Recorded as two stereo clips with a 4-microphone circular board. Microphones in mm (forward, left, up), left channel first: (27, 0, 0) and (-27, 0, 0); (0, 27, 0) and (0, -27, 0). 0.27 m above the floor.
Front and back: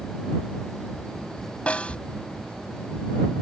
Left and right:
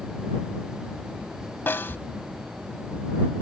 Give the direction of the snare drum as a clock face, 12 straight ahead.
10 o'clock.